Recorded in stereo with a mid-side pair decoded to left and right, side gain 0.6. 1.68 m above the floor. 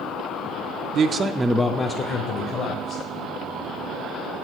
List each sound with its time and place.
0.9 s a man speaking: 55° right, 0.6 m; by 3.0 s 55° left, 1.6 m